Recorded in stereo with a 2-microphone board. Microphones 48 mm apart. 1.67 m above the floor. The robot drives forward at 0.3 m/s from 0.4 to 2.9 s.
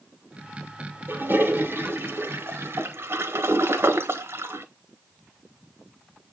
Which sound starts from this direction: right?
A toilet flushing, at 1.1 s.